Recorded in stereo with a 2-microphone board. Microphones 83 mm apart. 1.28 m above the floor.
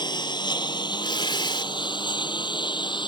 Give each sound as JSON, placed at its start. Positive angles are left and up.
{"t": 0.0, "sound": "a lawn mower", "side_deg": 60}
{"t": 1.0, "sound": "tearing paper", "side_deg": 70}